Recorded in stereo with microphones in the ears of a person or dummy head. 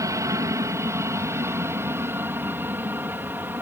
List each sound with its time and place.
0.0 s an aircraft: 15° right (ahead or behind); by 3.6 s 10° right (ahead or behind)